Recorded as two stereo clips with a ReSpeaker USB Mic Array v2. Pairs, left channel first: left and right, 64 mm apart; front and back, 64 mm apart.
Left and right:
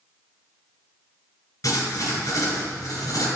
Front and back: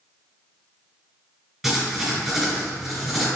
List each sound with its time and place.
1.6 s writing: 95° left, 1.9 m